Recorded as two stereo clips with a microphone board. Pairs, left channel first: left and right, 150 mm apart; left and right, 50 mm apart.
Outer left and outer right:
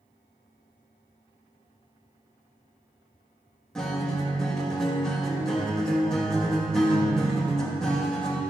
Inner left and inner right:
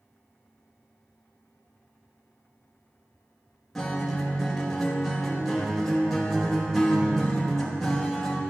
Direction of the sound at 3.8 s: 5° left (ahead or behind).